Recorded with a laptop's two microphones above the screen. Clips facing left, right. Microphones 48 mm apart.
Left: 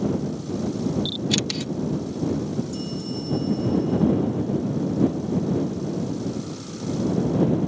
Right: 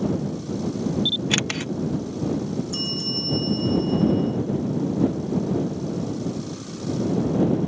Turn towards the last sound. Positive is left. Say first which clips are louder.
# right 1 dB
turn(degrees=-80)